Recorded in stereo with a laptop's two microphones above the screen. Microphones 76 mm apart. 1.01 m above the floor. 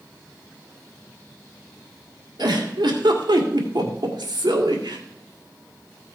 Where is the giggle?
75° right (ahead or behind), 2 m.